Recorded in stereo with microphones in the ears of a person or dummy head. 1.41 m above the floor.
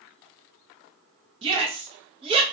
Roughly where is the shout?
Right.